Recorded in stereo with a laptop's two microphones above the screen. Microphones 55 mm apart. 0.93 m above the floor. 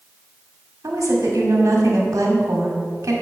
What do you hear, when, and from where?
0.8 s a woman speaking: 80° right, 2 m